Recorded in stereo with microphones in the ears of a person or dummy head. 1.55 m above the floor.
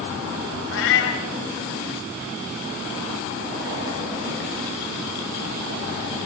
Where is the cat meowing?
70° left (ahead or behind), 3 m.